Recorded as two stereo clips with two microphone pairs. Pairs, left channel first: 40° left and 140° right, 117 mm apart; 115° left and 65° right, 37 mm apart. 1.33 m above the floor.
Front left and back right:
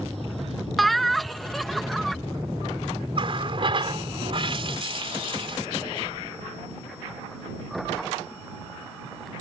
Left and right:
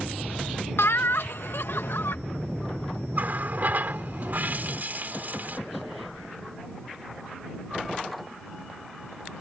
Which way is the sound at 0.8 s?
130° left.